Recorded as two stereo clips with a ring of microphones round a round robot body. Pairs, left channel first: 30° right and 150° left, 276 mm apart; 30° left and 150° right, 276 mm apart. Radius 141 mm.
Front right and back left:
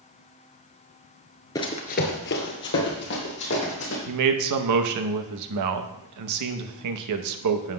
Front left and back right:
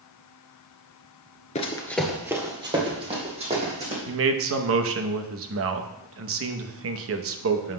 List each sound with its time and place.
1.6 s running footsteps: 25° left, 0.9 m; by 4.0 s 85° right, 3.5 m
4.1 s a man speaking: 170° left, 0.8 m